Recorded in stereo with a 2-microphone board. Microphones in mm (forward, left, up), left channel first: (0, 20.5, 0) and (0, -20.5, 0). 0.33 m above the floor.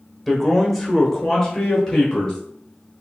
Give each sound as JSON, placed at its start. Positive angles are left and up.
{"t": 0.3, "sound": "a man speaking", "side_deg": -5, "distance_m": 0.9}